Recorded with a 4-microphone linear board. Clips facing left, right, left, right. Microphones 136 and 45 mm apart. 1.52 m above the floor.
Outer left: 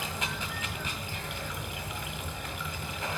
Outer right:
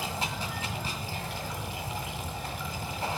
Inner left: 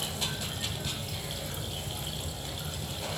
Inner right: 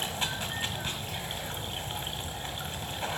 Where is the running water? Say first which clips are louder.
Outer right 2 dB, inner right 2 dB; 30° right (ahead or behind), 1.5 m.